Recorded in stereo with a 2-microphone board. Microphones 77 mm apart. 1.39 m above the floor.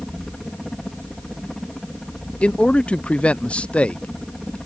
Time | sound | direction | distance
0.0 | a helicopter | 5° left (ahead or behind) | ?
2.4 | a man speaking | 15° left (ahead or behind) | ?